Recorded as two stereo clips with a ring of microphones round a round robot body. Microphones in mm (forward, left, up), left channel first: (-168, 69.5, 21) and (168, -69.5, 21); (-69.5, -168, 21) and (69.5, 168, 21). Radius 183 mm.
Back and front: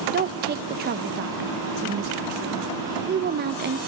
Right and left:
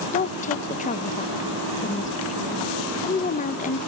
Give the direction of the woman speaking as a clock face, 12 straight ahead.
2 o'clock.